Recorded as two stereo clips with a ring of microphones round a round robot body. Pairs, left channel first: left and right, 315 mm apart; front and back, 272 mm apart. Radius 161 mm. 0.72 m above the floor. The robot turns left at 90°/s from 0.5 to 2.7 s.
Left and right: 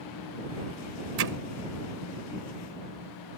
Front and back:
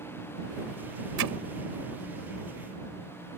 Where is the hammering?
135° right; by 1.3 s 150° right.